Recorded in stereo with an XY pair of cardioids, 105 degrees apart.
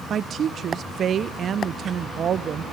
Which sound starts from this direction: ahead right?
A woman speaking, at 0.1 s.